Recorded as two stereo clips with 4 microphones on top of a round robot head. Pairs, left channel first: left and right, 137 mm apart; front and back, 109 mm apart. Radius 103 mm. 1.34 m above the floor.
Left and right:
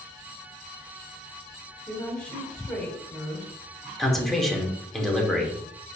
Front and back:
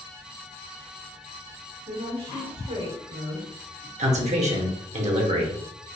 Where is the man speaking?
Straight behind, 1.1 m.